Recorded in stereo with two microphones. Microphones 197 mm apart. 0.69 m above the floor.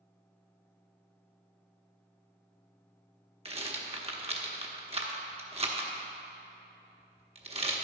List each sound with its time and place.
3.5 s a rattle: 30° right (ahead or behind), 1.0 m